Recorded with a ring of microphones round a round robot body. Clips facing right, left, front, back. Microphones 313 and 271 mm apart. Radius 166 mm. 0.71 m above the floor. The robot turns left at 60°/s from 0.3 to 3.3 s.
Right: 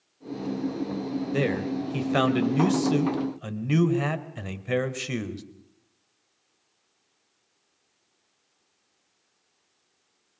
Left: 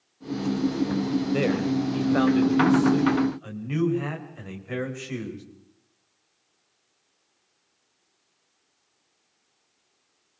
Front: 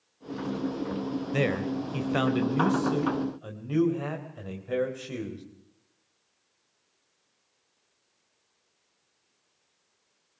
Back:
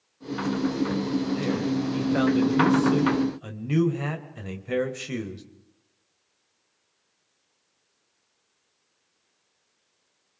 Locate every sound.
1.3 s a man speaking: straight ahead, 3.5 m; by 5.4 s 120° right, 3.5 m